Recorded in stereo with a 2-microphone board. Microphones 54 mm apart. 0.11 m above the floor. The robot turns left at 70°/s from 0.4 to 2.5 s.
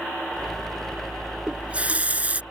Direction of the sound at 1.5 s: 20° right (ahead or behind).